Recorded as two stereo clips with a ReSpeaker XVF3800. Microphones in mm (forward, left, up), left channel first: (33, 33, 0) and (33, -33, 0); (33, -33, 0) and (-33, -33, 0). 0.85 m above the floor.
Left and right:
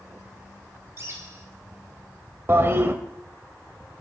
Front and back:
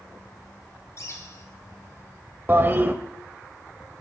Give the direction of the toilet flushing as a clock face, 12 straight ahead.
4 o'clock.